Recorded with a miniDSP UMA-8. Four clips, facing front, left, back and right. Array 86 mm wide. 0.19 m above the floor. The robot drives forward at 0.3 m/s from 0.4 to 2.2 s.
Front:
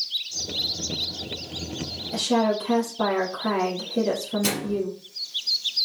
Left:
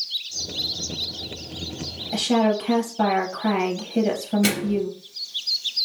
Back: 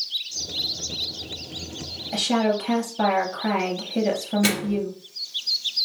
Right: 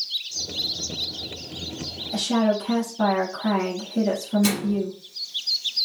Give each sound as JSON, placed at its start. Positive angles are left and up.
{"t": 2.1, "sound": "a woman speaking", "azimuth_deg": 150, "distance_m": 3.0}
{"t": 4.4, "sound": "a microwave", "azimuth_deg": 150, "distance_m": 3.0}